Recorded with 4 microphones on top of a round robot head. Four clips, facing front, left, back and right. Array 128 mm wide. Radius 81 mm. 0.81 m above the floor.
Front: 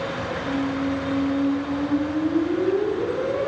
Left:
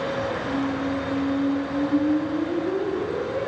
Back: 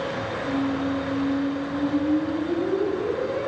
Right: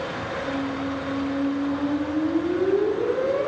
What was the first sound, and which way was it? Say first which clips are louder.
A squeak: left 2 dB, even; 55° right.